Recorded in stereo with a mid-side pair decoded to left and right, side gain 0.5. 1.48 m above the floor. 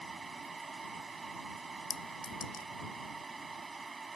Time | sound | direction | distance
0.0 | a fan | 25° right | ?
1.9 | a clink | 45° left | ?